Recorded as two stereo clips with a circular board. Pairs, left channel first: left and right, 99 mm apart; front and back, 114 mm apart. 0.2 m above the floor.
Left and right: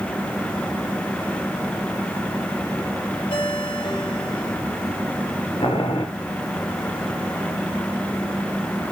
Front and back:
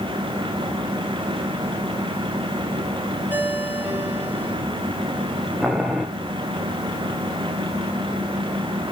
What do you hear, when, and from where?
3.3 s a ringtone: 110° left, 3.5 m
5.6 s boiling: 95° left, 2.5 m